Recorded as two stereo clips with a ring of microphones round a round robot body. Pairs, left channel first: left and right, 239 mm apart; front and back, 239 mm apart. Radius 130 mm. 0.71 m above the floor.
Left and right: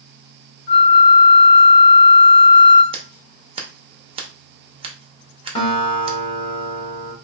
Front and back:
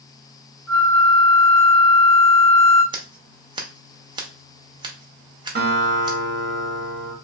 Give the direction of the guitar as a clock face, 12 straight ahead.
7 o'clock.